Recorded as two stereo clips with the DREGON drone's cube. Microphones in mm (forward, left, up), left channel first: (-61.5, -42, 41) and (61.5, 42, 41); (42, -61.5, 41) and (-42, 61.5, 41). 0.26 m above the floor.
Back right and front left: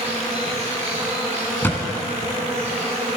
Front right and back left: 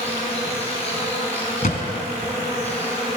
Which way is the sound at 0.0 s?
10° right.